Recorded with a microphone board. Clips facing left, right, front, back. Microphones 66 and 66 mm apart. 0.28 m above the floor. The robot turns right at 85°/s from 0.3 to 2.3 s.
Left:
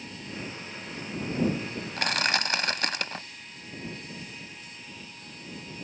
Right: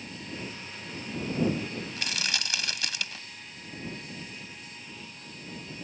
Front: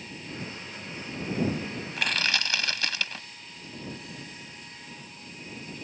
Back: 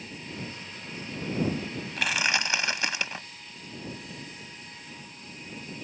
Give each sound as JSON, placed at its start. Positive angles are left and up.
{"t": 2.0, "sound": "crushing", "azimuth_deg": 85}